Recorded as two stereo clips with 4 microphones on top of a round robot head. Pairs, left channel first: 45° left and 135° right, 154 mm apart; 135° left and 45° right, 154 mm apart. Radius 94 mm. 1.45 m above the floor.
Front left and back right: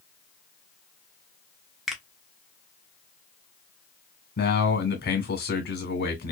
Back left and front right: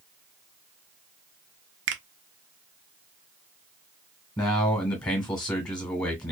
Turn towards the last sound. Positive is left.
turn(degrees=65)